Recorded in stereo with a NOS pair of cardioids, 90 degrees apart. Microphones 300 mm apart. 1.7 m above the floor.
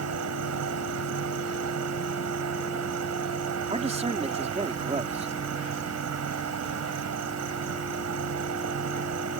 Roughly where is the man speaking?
Ahead.